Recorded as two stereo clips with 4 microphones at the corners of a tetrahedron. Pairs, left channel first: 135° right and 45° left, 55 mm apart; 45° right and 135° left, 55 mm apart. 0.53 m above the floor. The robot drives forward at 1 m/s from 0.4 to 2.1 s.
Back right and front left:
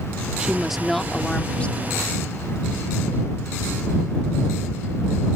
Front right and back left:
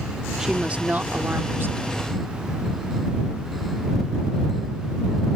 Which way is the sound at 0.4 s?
75° left.